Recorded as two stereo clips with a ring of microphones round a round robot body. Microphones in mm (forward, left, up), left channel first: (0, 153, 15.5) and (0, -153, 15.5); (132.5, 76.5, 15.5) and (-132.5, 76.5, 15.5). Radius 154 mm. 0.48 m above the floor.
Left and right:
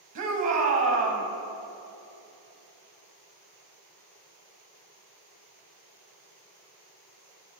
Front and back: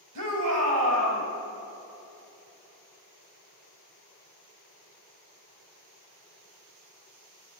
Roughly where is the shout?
Behind right.